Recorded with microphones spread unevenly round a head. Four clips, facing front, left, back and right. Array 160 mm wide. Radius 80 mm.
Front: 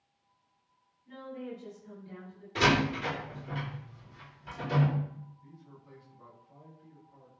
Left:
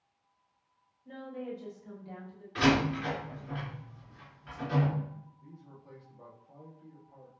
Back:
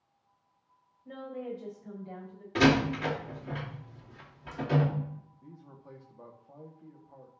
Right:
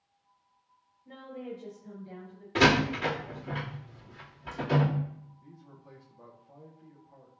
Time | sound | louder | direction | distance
1.1 | a woman speaking | left 1 dB, back 3 dB | 175° left | 5.5 m
2.5 | a door slam | right 2 dB, back 3 dB | 130° right | 2.5 m
5.4 | a man speaking | even, back 3 dB | 175° right | 2 m